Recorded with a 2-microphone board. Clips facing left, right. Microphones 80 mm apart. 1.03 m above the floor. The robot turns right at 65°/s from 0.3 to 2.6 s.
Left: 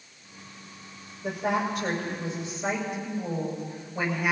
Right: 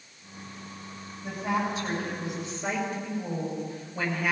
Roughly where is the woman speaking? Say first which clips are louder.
Left 2 dB; left.